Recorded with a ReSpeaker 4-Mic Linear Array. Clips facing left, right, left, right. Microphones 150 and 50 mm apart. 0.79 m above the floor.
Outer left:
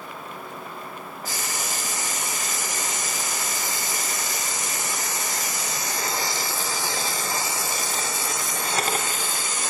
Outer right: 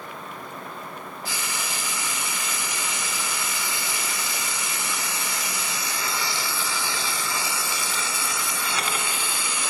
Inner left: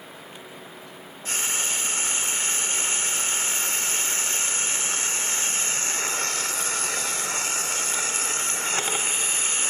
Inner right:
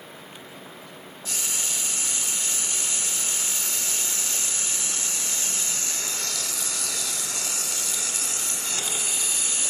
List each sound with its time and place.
1.2 s frying: 40° left (ahead or behind), 1.5 m